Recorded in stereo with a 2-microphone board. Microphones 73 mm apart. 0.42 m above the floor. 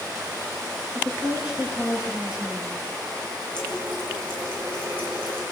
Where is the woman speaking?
15° right (ahead or behind), 9 m; by 2.8 s 10° right (ahead or behind), 8 m.